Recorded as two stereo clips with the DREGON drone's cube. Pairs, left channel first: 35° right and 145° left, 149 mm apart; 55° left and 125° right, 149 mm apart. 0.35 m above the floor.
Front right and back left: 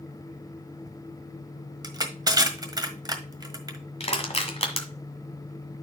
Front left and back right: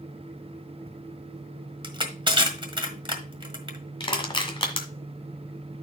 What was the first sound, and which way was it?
Crushing, 165° right.